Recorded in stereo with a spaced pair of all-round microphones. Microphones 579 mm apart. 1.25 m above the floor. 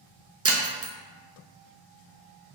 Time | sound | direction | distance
0.5 | breaking glass | 25° right (ahead or behind) | 0.5 m